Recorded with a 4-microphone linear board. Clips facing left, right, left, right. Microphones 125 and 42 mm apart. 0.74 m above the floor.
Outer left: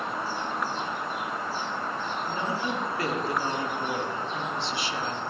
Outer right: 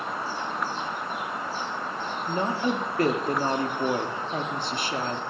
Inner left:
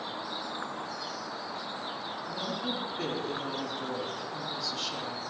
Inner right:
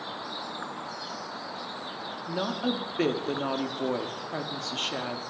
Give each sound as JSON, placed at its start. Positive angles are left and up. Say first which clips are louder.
{"t": 2.3, "sound": "a woman speaking", "louder": "outer right 6 dB, inner right 6 dB", "side_deg": -45, "distance_m": 1.4}